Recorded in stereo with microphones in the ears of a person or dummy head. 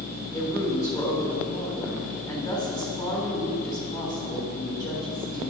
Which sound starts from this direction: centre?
A woman speaking, at 0.3 s.